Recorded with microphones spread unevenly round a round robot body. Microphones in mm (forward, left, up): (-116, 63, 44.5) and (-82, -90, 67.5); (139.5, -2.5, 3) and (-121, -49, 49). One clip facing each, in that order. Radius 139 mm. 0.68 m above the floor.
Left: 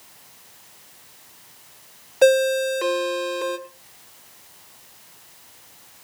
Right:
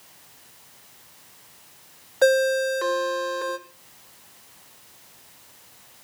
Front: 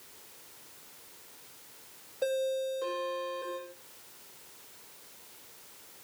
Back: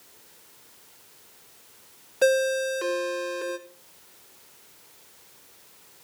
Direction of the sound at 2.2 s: 175° left.